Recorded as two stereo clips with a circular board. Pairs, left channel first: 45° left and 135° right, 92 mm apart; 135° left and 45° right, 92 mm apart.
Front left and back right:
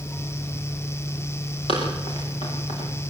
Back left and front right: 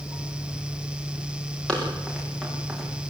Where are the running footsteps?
55° left, 8.5 m; by 2.9 s 45° left, 8 m.